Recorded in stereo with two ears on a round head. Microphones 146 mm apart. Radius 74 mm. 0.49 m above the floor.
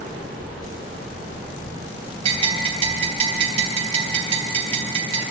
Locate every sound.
2.2 s a bell: 35° right (ahead or behind), 4 m